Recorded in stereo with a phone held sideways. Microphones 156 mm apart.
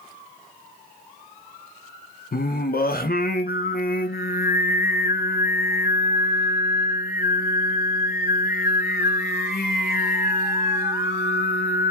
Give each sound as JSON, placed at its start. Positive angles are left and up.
{"t": 2.3, "sound": "singing", "side_deg": 65, "distance_m": 0.6}